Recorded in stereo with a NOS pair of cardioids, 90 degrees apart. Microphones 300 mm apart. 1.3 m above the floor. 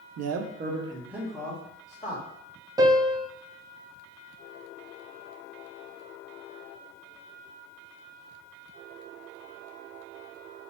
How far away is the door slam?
I don't hear a door slam.